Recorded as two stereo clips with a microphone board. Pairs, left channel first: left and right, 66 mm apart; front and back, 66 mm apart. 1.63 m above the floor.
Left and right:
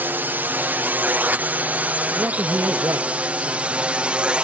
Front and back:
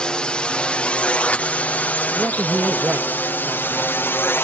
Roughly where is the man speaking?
Behind right.